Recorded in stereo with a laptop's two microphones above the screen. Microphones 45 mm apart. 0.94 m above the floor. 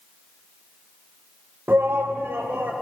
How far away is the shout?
About 0.5 m.